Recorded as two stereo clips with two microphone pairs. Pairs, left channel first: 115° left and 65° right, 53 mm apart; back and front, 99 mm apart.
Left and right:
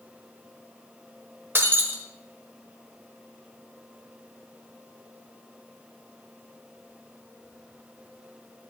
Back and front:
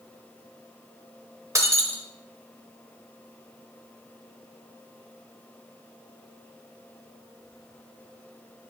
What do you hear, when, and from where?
1.6 s breaking glass: 45° right, 1.2 m